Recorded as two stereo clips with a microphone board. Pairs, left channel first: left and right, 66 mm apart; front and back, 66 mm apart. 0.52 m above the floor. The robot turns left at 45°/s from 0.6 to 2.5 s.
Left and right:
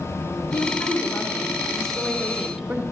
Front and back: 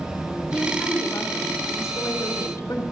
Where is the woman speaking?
65° left, 1.5 m; by 2.8 s 20° right, 1.5 m.